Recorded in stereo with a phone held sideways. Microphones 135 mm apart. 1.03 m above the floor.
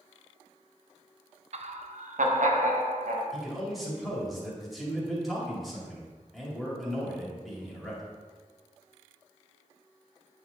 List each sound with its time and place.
1.5 s laughter: 55° right (ahead or behind), 0.6 m; by 3.2 s 70° right (ahead or behind), 1.4 m
3.3 s a man speaking: centre (ahead or behind), 2.5 m